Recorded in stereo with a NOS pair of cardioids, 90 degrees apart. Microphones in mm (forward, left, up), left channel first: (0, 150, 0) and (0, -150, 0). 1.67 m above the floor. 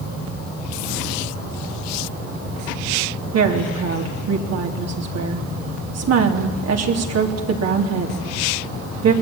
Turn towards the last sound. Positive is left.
turn(degrees=-55)